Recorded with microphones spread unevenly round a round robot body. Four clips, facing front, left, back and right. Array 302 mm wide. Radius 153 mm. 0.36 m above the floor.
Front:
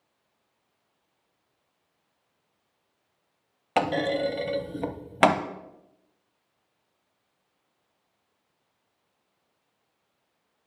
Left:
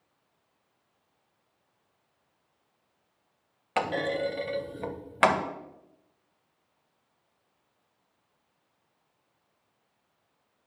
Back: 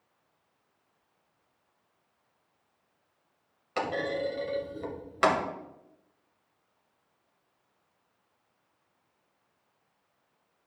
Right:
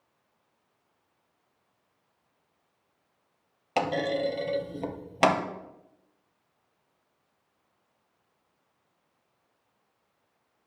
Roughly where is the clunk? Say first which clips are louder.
Right 1 dB, front 6 dB; ahead.